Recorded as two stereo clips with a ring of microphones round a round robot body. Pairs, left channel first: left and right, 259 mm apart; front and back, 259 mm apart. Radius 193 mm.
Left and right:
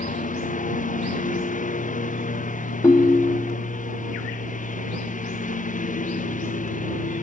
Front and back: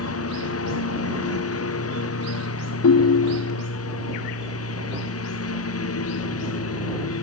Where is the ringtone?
15° left.